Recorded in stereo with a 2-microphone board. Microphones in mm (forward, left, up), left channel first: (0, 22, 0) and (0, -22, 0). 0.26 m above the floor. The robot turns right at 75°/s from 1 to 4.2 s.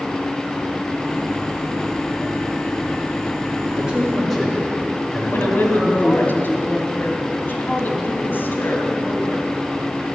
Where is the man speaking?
25° right, 4.5 m; by 6.3 s 5° left, 4.5 m.